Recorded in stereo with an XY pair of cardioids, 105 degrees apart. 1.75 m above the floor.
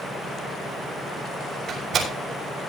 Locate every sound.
1.7 s a door slam: 65° right, 6.5 m